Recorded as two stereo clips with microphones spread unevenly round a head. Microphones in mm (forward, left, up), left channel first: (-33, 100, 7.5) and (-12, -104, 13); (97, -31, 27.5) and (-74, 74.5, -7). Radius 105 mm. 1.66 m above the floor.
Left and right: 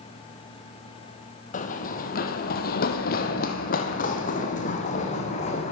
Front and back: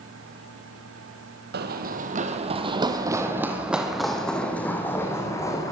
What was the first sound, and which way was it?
Running footsteps, 130° left.